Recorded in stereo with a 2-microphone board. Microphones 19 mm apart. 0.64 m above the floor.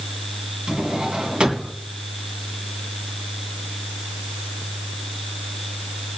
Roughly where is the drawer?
Right.